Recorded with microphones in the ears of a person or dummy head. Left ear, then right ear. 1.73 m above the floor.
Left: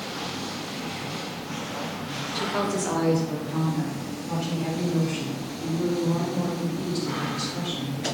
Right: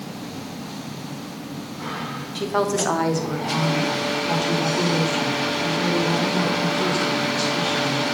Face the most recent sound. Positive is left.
turn(degrees=-60)  # may be behind; listen again after turning